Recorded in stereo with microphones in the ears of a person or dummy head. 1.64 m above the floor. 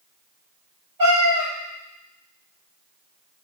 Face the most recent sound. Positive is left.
turn(degrees=-25)  # may be behind; listen again after turning